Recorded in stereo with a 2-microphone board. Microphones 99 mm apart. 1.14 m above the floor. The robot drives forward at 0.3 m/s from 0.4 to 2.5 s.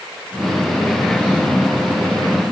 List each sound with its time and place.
Only background noise.